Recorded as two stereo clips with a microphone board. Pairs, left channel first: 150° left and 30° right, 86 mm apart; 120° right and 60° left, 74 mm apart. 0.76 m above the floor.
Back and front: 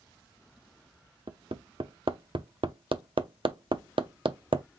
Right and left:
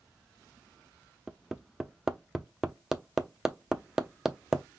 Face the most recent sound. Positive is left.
turn(degrees=-25)